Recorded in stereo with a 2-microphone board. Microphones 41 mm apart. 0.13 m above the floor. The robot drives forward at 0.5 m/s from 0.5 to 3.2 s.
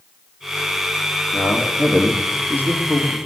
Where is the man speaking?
60° left (ahead or behind), 2.5 m; by 3.2 s 50° left (ahead or behind), 3 m.